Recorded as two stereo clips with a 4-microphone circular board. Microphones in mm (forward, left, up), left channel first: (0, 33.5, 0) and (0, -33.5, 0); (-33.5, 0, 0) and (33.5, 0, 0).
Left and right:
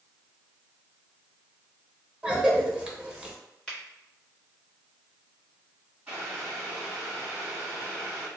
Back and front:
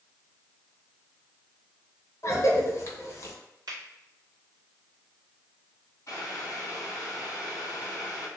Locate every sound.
2.2 s a cough: 160° right, 1.0 m
3.7 s a finger snap: 15° left, 1.5 m
6.1 s boiling: 150° right, 1.8 m